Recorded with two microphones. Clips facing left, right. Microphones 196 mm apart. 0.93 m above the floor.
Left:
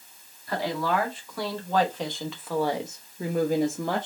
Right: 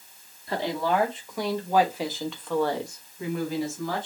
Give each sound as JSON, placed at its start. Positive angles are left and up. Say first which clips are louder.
{"t": 0.5, "sound": "a woman speaking", "louder": "right 1 dB", "side_deg": -30, "distance_m": 1.6}